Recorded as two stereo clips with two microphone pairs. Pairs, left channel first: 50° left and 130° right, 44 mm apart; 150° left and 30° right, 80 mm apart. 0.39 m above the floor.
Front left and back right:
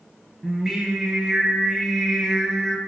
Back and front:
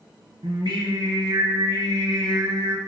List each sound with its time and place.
0.4 s singing: 45° right, 0.6 m